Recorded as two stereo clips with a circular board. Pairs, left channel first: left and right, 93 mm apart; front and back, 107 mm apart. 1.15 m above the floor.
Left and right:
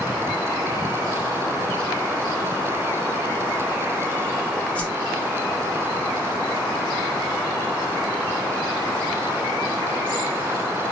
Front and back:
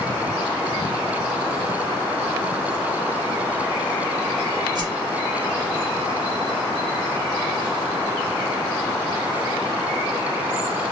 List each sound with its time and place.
4.8 s a whoosh: 160° left, 0.7 m